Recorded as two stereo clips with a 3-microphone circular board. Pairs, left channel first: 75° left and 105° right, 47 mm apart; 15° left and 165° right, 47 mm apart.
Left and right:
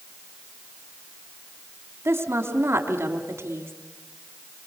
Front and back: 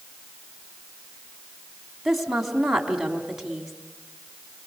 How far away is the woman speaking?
About 3.5 m.